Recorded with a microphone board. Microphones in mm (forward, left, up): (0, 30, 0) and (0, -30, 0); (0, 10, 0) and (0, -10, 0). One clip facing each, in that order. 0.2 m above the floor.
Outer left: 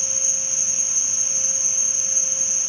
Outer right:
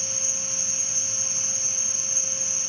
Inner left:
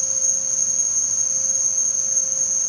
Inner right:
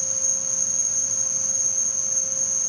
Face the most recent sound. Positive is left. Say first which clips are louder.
# outer left 1 dB, inner left 3 dB
turn(degrees=15)  # may be behind; listen again after turning